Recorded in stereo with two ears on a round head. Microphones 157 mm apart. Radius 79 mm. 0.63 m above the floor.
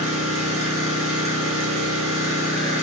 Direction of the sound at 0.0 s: 35° right (ahead or behind).